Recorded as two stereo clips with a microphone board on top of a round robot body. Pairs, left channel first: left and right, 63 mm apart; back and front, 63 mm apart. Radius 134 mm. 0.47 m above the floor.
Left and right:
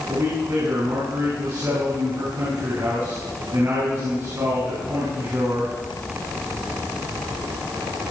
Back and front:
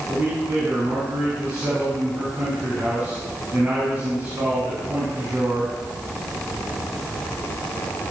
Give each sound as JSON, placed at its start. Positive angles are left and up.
{"t": 0.1, "sound": "a man speaking", "azimuth_deg": -60, "distance_m": 6.5}